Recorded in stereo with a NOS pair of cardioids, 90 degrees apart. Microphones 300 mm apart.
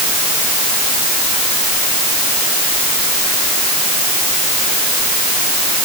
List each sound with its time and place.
Only background noise.